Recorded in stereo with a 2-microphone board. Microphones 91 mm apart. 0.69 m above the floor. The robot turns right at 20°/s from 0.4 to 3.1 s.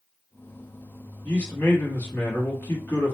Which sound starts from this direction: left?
A man speaking, at 1.2 s.